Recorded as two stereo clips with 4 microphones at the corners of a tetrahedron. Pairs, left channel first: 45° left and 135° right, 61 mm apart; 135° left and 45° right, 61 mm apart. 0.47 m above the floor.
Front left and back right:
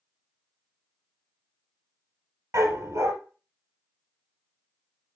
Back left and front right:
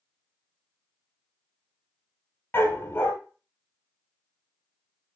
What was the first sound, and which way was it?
A dog barking, 170° right.